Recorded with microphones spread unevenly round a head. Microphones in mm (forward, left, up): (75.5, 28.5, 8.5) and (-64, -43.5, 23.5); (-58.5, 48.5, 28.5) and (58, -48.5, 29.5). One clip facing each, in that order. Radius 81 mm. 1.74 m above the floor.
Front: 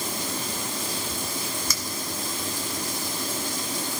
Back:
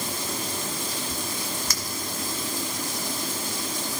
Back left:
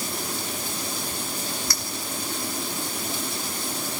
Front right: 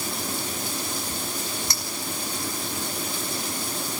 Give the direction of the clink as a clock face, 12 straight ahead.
11 o'clock.